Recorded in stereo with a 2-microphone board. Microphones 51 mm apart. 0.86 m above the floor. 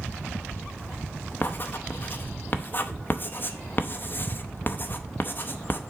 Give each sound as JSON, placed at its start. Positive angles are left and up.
{"t": 1.4, "sound": "writing", "side_deg": 40, "distance_m": 0.7}